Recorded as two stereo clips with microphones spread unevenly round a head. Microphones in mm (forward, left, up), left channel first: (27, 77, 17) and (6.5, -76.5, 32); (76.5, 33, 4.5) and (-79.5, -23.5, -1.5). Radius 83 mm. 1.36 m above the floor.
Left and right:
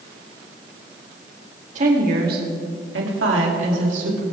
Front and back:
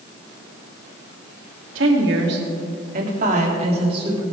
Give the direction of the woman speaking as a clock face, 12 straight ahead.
5 o'clock.